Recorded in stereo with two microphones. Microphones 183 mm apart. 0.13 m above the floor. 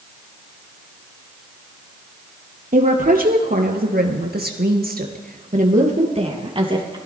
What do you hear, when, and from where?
2.7 s a woman speaking: 50° right (ahead or behind), 3.5 m; by 7.0 s 25° right (ahead or behind), 3.5 m